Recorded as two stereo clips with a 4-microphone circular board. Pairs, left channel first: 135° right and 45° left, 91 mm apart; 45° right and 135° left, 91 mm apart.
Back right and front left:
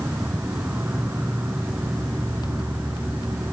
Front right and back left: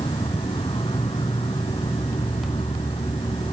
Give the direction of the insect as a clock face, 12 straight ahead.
1 o'clock.